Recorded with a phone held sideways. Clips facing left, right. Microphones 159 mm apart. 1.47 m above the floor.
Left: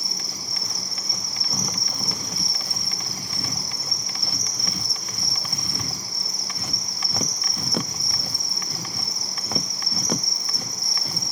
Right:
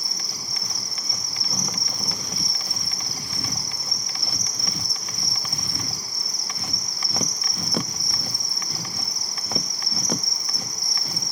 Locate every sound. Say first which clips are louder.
0.0 s an insect: left 2 dB; 25° left (ahead or behind), 1.1 m